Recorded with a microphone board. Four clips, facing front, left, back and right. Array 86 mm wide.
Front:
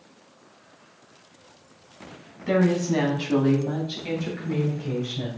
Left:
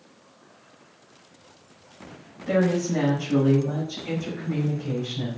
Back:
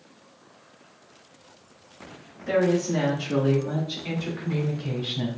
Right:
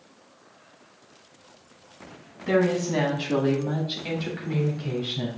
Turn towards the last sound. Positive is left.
turn(degrees=-140)